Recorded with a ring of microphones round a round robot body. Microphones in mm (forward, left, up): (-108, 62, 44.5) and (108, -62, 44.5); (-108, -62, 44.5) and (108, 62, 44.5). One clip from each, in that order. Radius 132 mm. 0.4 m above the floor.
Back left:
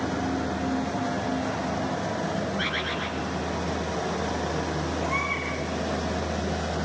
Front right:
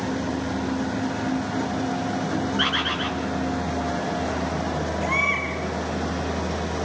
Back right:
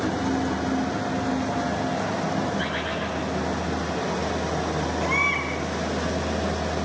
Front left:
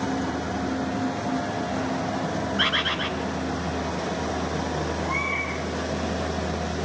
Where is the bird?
45° left, 3.5 m.